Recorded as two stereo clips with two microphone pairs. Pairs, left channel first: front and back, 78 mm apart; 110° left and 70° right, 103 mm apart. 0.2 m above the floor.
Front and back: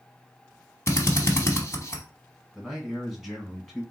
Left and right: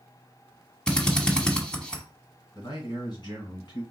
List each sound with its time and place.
0.9 s a drill: 30° left, 0.9 m
2.5 s a man speaking: 95° left, 2.0 m